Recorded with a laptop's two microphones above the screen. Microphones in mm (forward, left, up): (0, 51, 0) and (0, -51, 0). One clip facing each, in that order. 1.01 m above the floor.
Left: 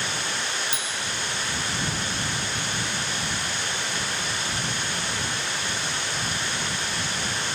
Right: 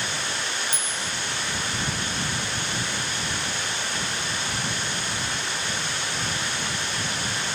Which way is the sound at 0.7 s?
45° right (ahead or behind).